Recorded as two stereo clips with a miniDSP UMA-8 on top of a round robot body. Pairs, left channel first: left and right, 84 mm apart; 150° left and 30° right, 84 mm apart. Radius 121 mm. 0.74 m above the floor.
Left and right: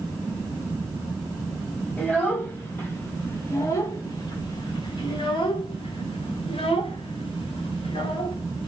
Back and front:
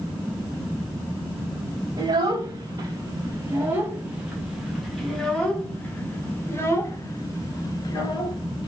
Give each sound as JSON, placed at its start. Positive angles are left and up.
{"t": 2.0, "sound": "a child speaking", "azimuth_deg": 20, "distance_m": 2.5}